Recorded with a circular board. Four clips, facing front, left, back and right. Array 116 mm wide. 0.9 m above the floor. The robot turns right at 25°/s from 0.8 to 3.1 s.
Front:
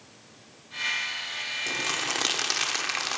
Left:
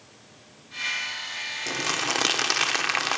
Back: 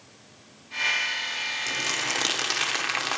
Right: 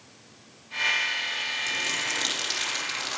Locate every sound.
1.7 s crumpling: 75° left, 0.9 m; by 3.2 s 110° left, 0.9 m